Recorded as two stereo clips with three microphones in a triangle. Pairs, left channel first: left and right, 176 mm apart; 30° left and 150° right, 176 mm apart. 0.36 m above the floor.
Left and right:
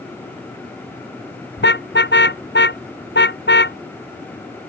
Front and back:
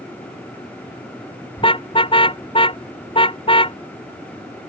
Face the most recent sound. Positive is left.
turn(degrees=90)